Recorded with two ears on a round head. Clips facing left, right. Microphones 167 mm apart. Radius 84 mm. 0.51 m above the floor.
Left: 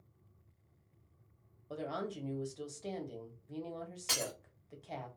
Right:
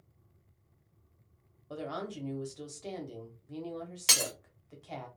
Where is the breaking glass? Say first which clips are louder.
Right 2 dB; 85° right, 0.9 m.